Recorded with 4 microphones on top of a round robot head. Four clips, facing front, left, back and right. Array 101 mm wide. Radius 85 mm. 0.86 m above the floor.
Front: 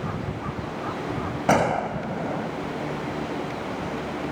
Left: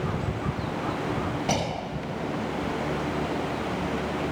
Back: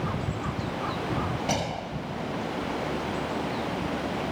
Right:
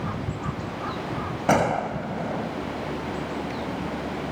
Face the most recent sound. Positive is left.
turn(degrees=-40)